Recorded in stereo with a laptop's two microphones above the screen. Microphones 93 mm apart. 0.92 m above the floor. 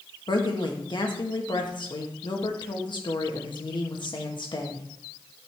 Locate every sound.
0.3 s a woman speaking: 55° left (ahead or behind), 1.2 m